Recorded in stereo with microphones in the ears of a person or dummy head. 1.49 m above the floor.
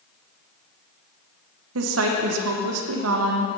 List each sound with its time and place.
1.8 s a woman speaking: 75° right (ahead or behind), 1.0 m